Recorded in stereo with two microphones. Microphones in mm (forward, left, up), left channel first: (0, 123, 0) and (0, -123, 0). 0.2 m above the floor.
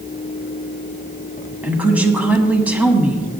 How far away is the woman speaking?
About 1.3 m.